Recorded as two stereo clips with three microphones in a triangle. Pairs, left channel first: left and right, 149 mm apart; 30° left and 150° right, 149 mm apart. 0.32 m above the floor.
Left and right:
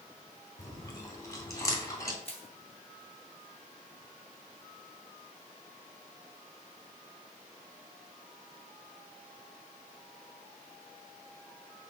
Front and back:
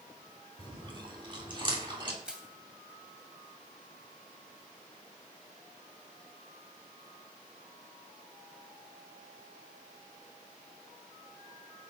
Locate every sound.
0.6 s chewing: 155° left, 3 m
2.2 s crushing: 125° left, 2 m